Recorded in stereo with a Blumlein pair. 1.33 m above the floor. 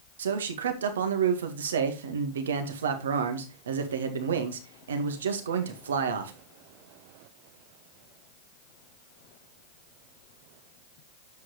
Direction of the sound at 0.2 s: 65° right.